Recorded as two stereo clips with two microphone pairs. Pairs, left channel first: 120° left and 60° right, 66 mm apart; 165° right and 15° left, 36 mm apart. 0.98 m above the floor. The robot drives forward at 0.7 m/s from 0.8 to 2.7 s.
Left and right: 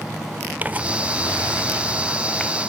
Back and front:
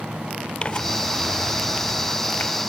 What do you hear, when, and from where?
0.6 s tearing paper: 120° right, 0.8 m; by 2.5 s 160° right, 1.7 m